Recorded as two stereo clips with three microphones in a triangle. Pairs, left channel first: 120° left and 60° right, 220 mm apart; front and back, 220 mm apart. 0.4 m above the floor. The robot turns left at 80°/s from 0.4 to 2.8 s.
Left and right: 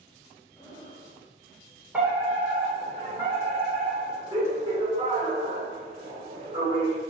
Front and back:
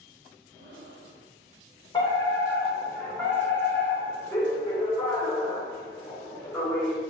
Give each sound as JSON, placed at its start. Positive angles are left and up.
{"t": 0.6, "sound": "breathing", "azimuth_deg": -160, "distance_m": 1.9}
{"t": 1.9, "sound": "a fire alarm", "azimuth_deg": 10, "distance_m": 2.0}